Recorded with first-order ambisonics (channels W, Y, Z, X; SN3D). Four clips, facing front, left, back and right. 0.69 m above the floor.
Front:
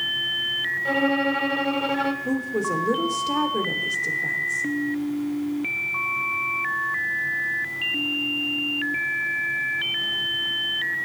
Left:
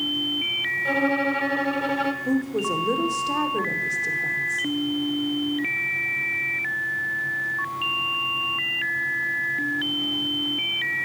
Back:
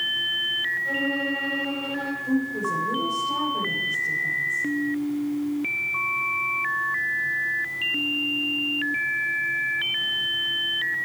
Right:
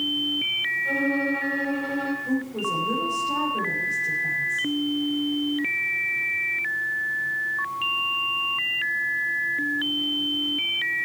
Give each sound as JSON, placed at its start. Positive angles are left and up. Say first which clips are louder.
{"t": 0.8, "sound": "a violin", "louder": "left 2 dB, front 3 dB", "azimuth_deg": 40, "distance_m": 1.3}
{"t": 2.2, "sound": "a woman speaking", "louder": "left 2 dB, even", "azimuth_deg": 40, "distance_m": 2.5}